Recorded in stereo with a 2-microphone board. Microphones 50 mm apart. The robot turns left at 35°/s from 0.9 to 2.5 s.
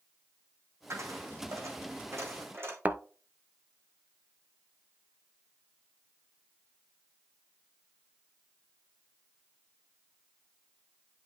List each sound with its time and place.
0.9 s a dropped coin: 65° right (ahead or behind), 2.5 m; by 2.8 s 55° right (ahead or behind), 2.5 m
2.9 s a thud: 30° right (ahead or behind), 0.7 m